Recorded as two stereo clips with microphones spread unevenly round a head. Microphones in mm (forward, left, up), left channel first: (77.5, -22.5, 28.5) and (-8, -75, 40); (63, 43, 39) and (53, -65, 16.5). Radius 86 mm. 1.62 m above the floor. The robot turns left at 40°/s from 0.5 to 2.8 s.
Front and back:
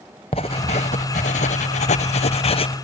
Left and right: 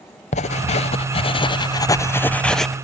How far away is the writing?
About 0.8 m.